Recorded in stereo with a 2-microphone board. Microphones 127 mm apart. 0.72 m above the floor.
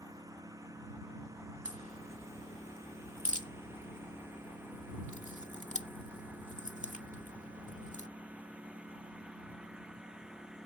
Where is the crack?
65° left (ahead or behind).